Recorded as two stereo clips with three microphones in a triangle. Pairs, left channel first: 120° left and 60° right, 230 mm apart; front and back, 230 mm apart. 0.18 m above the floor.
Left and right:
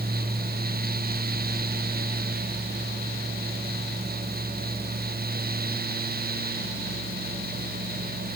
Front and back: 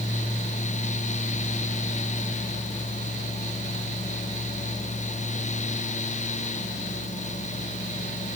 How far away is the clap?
No clap in this recording.